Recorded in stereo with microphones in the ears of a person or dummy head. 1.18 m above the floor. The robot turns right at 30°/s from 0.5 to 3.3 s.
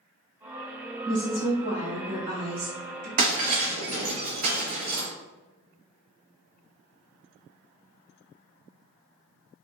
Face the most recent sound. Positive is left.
turn(degrees=-40)  # may be behind; listen again after turning